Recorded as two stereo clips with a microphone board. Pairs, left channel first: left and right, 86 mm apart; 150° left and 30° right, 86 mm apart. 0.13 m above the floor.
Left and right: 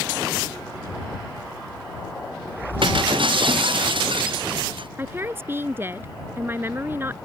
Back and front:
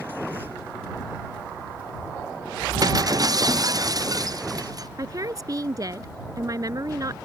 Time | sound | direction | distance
2.8 | breaking glass | 75° right | ?
5.0 | a woman speaking | 40° right | ?